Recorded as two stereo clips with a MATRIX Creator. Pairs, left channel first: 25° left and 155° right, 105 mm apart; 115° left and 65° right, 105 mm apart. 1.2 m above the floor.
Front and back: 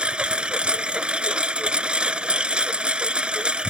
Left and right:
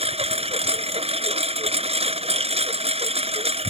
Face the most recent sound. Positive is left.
turn(degrees=-80)